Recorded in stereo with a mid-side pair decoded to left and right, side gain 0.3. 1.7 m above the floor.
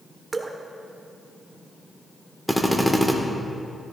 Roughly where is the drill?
Ahead.